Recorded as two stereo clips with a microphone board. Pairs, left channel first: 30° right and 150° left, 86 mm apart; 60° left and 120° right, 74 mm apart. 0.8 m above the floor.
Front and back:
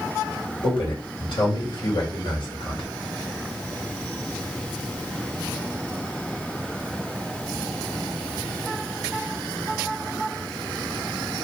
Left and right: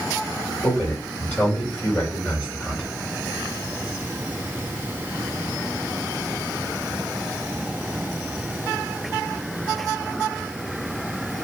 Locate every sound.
0.6 s a man speaking: 10° right, 2.5 m